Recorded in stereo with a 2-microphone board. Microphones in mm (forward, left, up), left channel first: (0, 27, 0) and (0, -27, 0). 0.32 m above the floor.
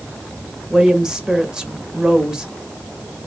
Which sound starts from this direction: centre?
A woman speaking, at 0.7 s.